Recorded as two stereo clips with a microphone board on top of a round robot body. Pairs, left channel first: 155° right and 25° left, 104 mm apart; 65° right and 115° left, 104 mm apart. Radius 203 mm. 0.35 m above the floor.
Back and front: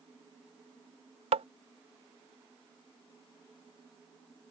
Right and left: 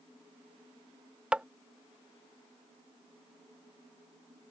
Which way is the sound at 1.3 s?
30° left.